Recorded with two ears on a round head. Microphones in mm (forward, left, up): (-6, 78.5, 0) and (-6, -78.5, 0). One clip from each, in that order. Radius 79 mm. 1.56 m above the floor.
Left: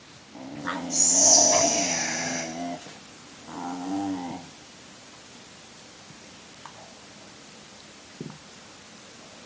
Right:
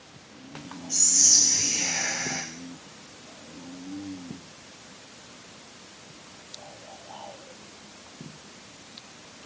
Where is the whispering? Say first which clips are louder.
Even; 10° right (ahead or behind), 0.8 m.